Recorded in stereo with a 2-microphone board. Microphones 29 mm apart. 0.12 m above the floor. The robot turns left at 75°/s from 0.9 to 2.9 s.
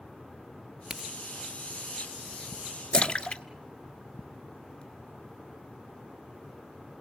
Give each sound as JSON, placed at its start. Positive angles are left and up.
{"t": 0.9, "sound": "a crack", "side_deg": -15, "distance_m": 2.0}
{"t": 2.9, "sound": "a splash", "side_deg": 40, "distance_m": 1.0}